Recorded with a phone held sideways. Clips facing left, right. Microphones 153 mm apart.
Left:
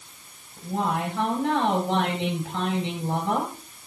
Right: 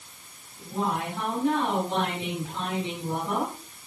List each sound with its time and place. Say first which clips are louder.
0.6 s a woman speaking: left 2 dB; 85° left, 7 m